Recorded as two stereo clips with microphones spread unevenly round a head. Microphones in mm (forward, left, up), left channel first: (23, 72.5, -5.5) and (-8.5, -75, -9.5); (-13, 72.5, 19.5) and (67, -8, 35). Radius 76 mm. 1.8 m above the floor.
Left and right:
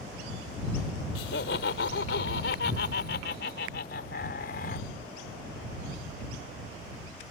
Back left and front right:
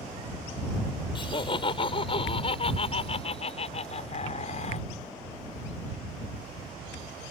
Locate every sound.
1.1 s laughter: 90° left; by 4.9 s 110° left